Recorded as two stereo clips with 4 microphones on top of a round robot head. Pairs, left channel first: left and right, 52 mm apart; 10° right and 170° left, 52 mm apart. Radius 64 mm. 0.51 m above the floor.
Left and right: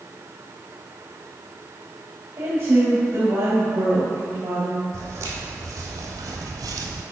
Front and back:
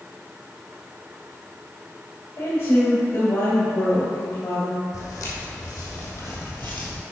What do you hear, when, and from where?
2.4 s a woman speaking: 45° right, 2 m
4.9 s footsteps: 40° right, 1.7 m; by 7.0 s 85° right, 0.9 m